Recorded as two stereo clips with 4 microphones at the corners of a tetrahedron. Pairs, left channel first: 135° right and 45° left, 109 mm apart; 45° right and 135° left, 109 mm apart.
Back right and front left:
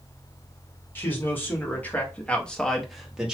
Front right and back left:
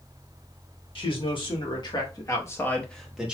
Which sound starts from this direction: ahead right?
A man speaking, at 0.9 s.